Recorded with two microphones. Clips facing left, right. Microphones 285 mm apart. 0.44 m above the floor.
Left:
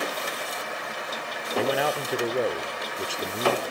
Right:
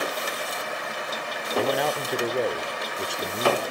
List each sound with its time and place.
1.6 s a man speaking: centre (ahead or behind), 0.8 m